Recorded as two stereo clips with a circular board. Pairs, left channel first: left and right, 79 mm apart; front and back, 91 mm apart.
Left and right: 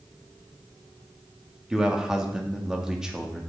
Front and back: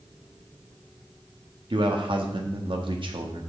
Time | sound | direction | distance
1.7 | a man speaking | 175° right | 1.7 m